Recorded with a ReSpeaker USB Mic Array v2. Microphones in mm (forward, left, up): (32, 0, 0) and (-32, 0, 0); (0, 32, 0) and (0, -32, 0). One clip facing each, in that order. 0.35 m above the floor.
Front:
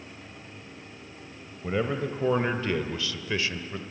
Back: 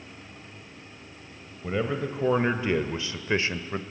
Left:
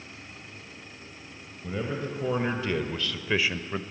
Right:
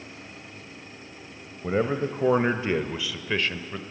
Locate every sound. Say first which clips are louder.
1.6 s a man speaking: even, right 7 dB; 85° right, 1.4 m; by 3.8 s 150° left, 1.2 m